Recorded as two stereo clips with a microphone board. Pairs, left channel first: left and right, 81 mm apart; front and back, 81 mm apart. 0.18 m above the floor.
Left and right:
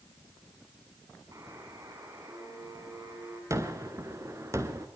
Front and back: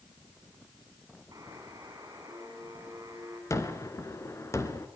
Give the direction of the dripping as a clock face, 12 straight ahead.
No dripping in this recording.